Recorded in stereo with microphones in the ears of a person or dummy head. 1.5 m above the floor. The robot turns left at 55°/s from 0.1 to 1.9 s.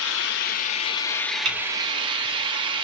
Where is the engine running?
70° left, 0.7 m; by 2.8 s 30° right, 0.7 m.